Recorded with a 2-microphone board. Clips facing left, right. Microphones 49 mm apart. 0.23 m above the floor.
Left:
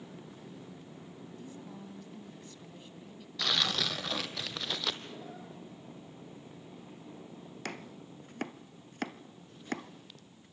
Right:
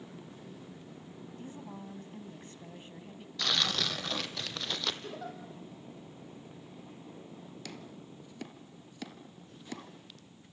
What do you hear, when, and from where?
1.4 s a woman speaking: 35° right (ahead or behind), 2 m
3.4 s tearing paper: 5° left (ahead or behind), 1.5 m
5.0 s a giggle: 75° right (ahead or behind), 5.5 m
7.7 s chopping: 50° left (ahead or behind), 1.0 m